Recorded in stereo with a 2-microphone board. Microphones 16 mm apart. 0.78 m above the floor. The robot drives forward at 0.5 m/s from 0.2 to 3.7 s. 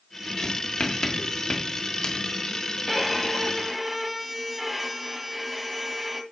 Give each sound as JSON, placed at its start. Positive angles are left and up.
{"t": 0.4, "sound": "writing", "side_deg": 60, "distance_m": 2.0}
{"t": 2.9, "sound": "a violin", "side_deg": -5, "distance_m": 1.3}